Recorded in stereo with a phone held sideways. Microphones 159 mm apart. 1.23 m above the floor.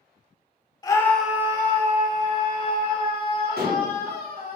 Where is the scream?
25° left (ahead or behind), 0.6 m; by 4.6 s 75° right (ahead or behind), 2 m.